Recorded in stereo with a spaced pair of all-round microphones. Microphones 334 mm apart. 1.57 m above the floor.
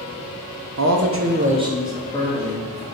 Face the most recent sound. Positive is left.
turn(degrees=25)  # may be behind; listen again after turning